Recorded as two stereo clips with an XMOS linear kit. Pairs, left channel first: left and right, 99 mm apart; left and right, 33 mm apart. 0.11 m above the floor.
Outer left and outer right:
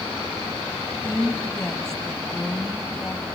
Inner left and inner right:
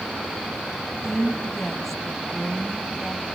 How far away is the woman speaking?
About 3 m.